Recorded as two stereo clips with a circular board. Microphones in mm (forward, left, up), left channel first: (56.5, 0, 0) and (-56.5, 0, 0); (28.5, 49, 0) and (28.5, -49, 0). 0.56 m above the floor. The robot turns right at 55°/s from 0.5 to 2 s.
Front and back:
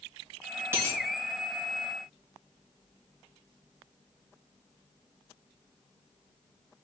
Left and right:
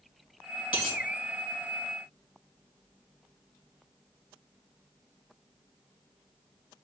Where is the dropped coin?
110° left, 3 m; by 1.0 s 125° left, 3 m.